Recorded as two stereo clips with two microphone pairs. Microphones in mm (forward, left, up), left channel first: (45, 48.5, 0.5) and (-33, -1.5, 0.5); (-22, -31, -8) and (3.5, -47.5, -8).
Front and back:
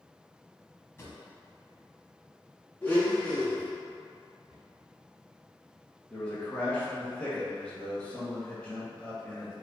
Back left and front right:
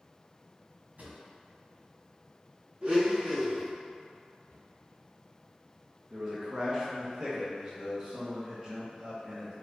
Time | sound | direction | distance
1.0 | a drawer | 30° right | 1.5 m
2.8 | a blender | 25° right | 1.3 m
4.5 | a cupboard door | 125° left | 1.6 m
6.1 | a man speaking | 25° right | 1.2 m